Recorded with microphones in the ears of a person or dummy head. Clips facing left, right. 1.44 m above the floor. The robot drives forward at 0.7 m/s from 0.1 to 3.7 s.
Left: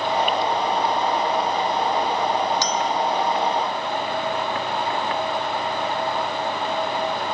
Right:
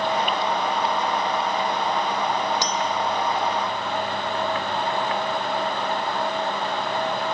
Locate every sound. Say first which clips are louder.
2.6 s a clink: left 2 dB; 60° left (ahead or behind), 0.7 m; by 2.9 s 55° left (ahead or behind), 0.8 m